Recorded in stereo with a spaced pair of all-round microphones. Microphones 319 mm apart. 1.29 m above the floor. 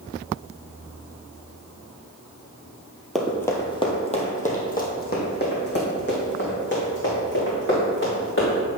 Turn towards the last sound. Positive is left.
turn(degrees=40)  # may be behind; listen again after turning